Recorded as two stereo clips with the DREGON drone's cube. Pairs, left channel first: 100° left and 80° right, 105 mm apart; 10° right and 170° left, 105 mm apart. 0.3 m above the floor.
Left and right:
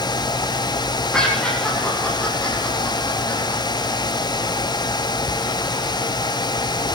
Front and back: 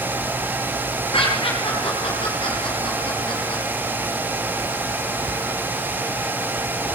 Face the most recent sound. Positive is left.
turn(degrees=40)